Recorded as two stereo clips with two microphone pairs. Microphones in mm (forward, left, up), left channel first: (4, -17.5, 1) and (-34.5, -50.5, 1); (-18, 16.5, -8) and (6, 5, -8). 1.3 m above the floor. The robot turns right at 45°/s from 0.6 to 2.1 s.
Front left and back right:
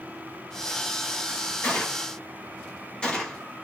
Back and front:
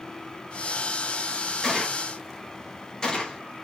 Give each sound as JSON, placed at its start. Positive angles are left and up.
{"t": 1.6, "sound": "a gunshot", "azimuth_deg": 85, "distance_m": 0.7}